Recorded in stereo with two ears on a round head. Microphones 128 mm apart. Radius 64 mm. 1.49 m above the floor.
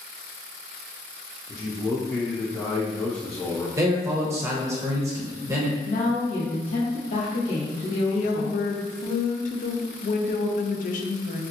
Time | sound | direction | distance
1.5 | a man speaking | 20° left (ahead or behind) | 0.6 m
3.8 | a man speaking | 20° right (ahead or behind) | 0.8 m
5.8 | a woman speaking | 65° left (ahead or behind) | 1.5 m
8.1 | a woman speaking | 55° left (ahead or behind) | 0.5 m